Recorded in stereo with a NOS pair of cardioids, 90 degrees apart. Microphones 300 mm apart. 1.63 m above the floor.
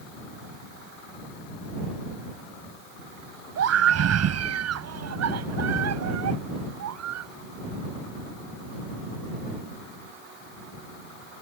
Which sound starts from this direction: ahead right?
A scream, at 3.6 s.